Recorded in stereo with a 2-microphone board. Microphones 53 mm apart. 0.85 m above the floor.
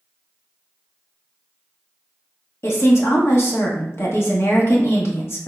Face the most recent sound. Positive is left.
turn(degrees=55)  # may be behind; listen again after turning